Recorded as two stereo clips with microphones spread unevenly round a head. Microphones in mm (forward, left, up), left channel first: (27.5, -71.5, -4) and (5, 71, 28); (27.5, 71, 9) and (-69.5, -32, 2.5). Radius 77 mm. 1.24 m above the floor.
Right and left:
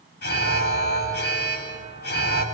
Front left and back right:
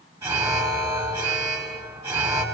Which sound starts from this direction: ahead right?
An alarm, at 0.2 s.